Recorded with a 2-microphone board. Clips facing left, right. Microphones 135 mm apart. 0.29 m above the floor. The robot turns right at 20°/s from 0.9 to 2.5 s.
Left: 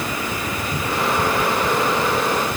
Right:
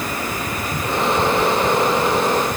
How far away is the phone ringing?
I don't hear a phone ringing.